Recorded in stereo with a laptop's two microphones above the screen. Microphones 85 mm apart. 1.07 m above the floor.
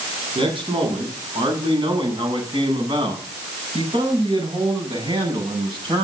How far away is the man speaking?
About 8.5 m.